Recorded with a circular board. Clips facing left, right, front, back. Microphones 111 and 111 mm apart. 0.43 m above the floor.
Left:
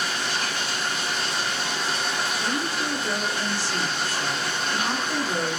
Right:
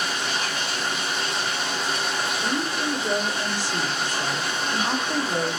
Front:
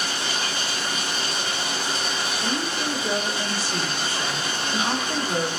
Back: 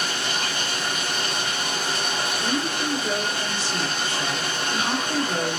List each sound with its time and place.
0.0 s running water: straight behind, 0.9 m
2.4 s a woman speaking: 55° right, 0.9 m